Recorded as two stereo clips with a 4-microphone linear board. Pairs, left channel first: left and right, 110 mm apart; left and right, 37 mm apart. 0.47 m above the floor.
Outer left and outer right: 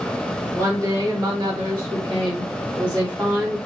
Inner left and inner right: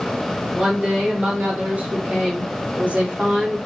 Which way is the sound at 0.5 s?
30° right (ahead or behind).